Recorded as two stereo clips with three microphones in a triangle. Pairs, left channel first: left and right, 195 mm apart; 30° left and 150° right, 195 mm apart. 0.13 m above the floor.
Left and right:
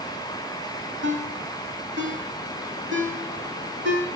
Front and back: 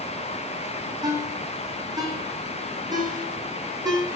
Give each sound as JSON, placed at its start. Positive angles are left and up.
{"t": 1.0, "sound": "a ringtone", "azimuth_deg": -80, "distance_m": 2.5}